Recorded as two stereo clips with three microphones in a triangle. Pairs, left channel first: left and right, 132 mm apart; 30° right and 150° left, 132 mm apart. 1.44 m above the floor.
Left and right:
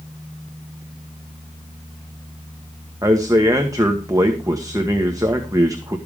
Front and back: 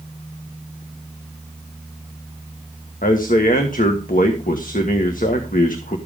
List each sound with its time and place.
3.0 s a man speaking: 25° right, 1.6 m